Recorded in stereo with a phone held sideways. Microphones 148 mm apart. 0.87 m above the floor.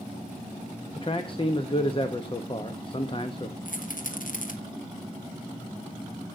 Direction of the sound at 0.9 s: 35° left (ahead or behind).